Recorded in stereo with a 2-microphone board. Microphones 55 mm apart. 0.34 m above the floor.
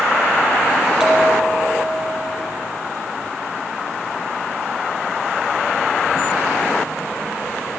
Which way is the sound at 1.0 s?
5° right (ahead or behind).